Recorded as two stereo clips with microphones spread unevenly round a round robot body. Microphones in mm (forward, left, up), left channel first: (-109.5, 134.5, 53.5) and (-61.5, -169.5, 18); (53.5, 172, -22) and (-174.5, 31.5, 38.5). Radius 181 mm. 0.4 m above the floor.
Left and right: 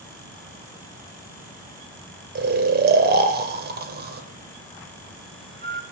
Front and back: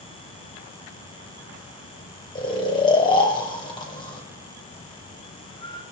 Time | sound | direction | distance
2.4 | snoring | 30° right | 1.2 m